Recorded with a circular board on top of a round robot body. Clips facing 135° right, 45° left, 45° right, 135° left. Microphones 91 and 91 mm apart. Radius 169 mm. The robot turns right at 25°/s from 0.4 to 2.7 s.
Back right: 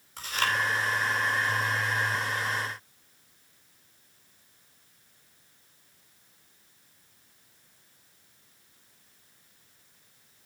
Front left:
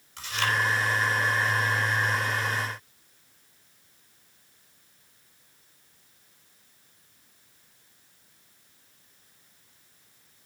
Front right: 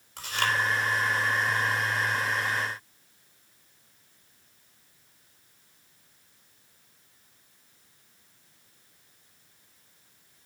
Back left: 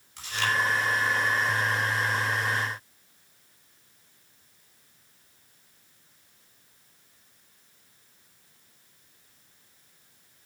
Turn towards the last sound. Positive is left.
turn(degrees=-30)